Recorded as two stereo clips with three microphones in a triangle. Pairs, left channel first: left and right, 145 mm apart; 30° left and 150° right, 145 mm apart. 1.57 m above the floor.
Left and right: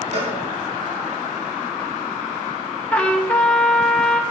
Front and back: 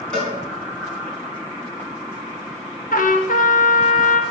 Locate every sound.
0.1 s a cowbell: 55° right, 4 m
2.9 s a trumpet: 10° left, 1.2 m